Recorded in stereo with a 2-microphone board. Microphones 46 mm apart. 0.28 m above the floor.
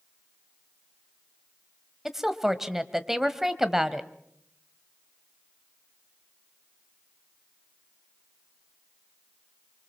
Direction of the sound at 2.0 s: 10° right (ahead or behind).